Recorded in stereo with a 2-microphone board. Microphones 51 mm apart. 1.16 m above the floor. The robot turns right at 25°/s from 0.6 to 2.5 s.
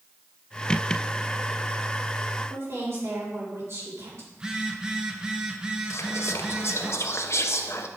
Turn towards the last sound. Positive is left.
turn(degrees=65)  # may be behind; listen again after turning